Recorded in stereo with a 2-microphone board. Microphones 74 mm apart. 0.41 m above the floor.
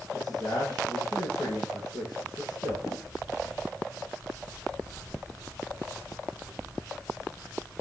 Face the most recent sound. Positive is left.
turn(degrees=55)  # may be behind; listen again after turning